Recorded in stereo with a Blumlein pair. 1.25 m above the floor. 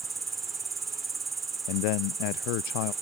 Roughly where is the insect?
Ahead.